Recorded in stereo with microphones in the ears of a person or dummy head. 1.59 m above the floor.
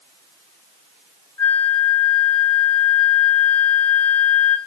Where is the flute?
20° left (ahead or behind), 1.1 m.